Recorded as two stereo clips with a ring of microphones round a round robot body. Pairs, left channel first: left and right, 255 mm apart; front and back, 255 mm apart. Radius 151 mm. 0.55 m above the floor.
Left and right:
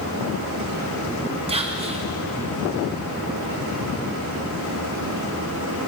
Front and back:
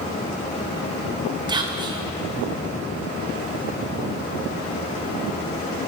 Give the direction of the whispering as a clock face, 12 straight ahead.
4 o'clock.